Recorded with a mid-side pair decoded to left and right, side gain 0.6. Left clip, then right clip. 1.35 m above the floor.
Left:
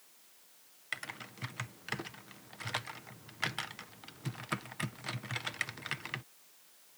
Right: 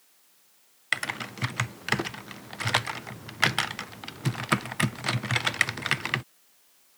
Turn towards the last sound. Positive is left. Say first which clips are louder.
# right 12 dB
turn(degrees=-55)